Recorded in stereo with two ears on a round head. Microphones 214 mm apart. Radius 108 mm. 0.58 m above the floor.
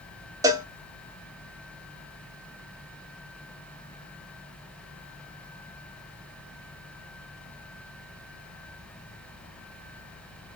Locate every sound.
0.4 s a cowbell: 15° right (ahead or behind), 0.8 m